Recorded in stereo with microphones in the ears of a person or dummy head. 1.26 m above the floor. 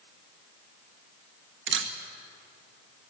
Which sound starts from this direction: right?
A camera shutter, at 1.7 s.